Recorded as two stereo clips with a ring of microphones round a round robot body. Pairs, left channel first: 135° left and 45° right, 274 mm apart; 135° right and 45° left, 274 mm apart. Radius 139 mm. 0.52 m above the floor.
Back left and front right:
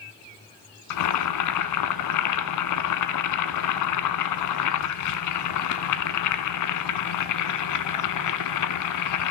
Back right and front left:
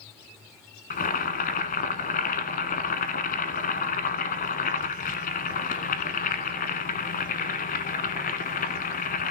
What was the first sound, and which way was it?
Boiling, 165° left.